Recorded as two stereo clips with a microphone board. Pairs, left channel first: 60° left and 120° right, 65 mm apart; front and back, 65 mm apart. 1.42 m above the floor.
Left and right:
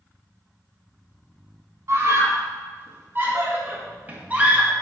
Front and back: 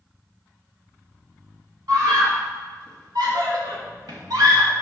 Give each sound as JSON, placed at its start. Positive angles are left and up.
{"t": 1.9, "sound": "a scream", "azimuth_deg": -165, "distance_m": 3.0}